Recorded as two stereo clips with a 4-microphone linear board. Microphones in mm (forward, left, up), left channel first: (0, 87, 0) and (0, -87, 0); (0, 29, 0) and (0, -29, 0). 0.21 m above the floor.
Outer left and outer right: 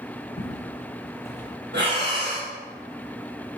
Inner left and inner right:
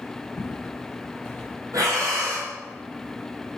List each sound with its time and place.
0.4 s footsteps: 40° left (ahead or behind), 1.1 m; by 1.6 s 5° left (ahead or behind), 1.0 m
1.7 s breathing: 85° right, 1.4 m